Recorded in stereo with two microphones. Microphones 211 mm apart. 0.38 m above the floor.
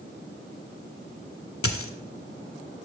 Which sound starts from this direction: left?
A dropped coin, at 1.6 s.